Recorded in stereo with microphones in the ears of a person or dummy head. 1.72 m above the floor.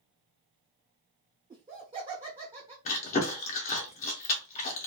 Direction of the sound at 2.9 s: 40° left (ahead or behind).